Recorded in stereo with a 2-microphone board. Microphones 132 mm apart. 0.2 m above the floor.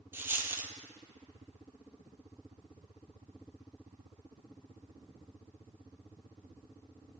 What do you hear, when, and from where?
0.1 s a dropped coin: 15° right (ahead or behind), 0.7 m